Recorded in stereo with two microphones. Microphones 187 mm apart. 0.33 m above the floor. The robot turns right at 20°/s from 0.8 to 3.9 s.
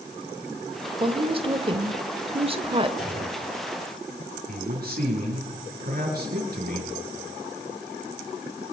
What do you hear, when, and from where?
1.0 s a woman speaking: 115° right, 0.9 m; by 2.9 s 75° right, 0.9 m
3.0 s a clunk: 35° left (ahead or behind), 7.5 m; by 3.4 s 45° left (ahead or behind), 7.5 m
4.5 s a man speaking: 60° right (ahead or behind), 5 m